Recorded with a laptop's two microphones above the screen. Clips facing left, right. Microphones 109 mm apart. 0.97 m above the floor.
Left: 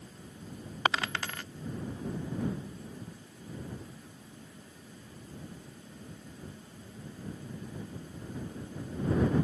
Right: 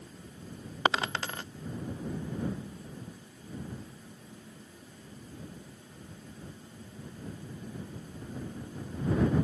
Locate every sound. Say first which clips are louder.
0.8 s a dropped coin: right 2 dB; 25° right (ahead or behind)